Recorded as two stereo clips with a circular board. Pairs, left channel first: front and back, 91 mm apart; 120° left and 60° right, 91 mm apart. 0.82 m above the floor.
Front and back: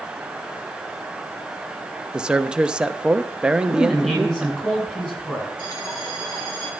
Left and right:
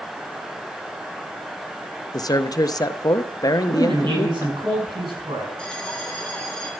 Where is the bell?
40° left, 3 m.